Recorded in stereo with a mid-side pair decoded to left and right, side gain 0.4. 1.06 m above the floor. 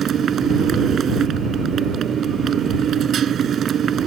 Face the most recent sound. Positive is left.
turn(degrees=-65)